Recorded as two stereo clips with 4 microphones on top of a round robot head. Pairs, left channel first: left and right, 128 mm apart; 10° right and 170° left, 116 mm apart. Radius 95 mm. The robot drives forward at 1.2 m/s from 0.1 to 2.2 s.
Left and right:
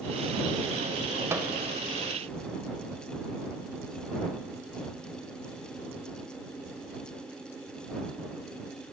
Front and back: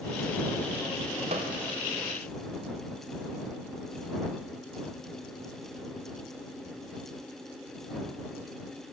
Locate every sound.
1.3 s a microwave: 155° right, 0.5 m; by 1.6 s 165° right, 0.7 m